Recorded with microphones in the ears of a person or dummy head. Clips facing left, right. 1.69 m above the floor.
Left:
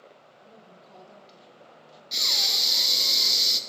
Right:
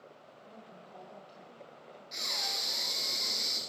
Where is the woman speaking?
30° left (ahead or behind), 1.7 m.